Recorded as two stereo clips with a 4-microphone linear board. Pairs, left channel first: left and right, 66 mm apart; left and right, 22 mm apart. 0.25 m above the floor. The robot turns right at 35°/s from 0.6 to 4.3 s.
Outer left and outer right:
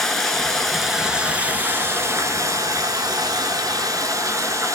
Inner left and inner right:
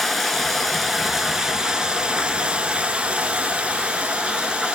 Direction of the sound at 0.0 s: 175° left.